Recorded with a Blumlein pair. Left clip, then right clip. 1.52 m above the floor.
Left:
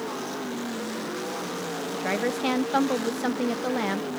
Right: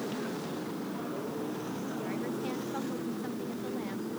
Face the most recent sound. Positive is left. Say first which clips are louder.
# left 11 dB
turn(degrees=35)